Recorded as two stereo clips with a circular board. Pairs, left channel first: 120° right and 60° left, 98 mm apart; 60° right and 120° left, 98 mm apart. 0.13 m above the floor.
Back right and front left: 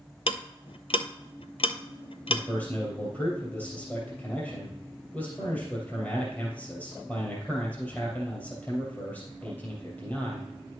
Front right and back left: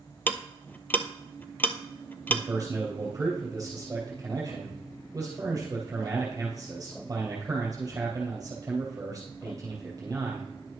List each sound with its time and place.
0.3 s ticking: 130° right, 0.6 m
2.3 s a man speaking: 175° left, 2.5 m